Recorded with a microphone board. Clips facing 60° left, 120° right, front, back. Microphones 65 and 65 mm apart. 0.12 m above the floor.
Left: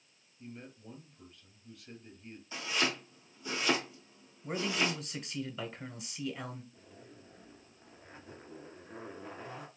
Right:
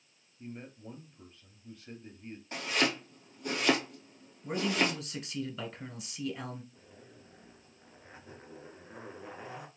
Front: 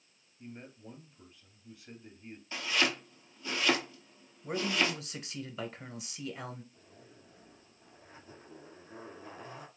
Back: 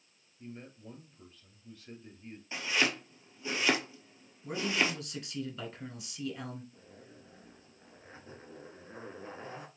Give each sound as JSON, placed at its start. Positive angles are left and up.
{"t": 0.4, "sound": "a man speaking", "azimuth_deg": -75, "distance_m": 2.0}
{"t": 2.5, "sound": "chopping", "azimuth_deg": -115, "distance_m": 1.5}
{"t": 4.4, "sound": "a man speaking", "azimuth_deg": -35, "distance_m": 1.1}
{"t": 6.7, "sound": "a zipper", "azimuth_deg": 160, "distance_m": 1.5}